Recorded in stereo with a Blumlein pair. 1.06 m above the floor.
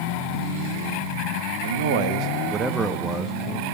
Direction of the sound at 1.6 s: 65° right.